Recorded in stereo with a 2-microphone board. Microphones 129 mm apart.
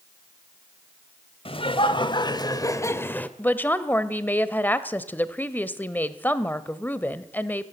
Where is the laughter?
45° left (ahead or behind), 1.8 m; by 3.3 s 10° left (ahead or behind), 1.2 m.